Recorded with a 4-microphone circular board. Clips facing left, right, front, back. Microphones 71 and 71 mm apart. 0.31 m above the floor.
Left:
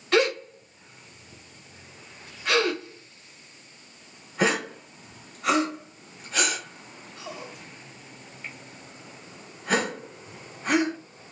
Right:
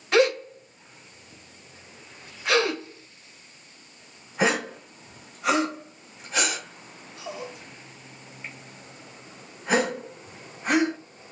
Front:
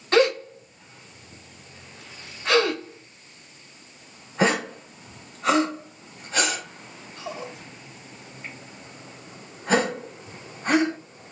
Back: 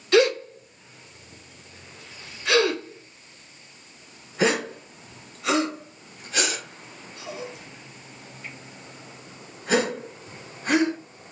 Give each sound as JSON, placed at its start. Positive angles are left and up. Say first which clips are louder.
{"t": 0.1, "sound": "a gasp", "louder": "right 2 dB, back 1 dB", "azimuth_deg": -10, "distance_m": 1.3}